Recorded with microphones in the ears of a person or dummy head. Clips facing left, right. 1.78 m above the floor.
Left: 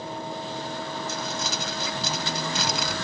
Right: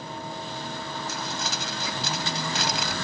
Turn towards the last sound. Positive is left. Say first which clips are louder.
# left 2 dB
turn(degrees=90)